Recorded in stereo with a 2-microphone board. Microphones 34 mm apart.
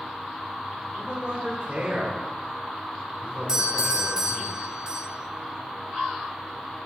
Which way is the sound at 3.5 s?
20° right (ahead or behind).